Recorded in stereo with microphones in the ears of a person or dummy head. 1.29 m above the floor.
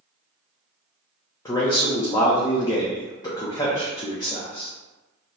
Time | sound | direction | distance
1.4 | a man speaking | 20° left (ahead or behind) | 0.6 m